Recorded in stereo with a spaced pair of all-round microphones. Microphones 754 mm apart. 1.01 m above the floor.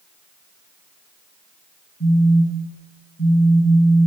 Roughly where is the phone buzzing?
Centre.